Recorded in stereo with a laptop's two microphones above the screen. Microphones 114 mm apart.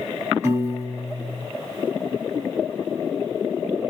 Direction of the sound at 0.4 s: 25° right (ahead or behind).